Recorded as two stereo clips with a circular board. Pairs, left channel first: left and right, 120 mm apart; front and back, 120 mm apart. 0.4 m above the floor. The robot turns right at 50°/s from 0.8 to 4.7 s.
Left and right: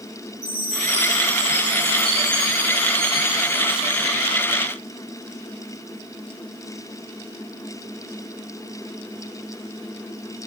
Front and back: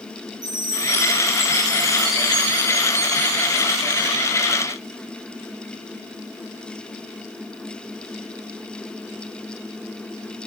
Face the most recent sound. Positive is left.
turn(degrees=-100)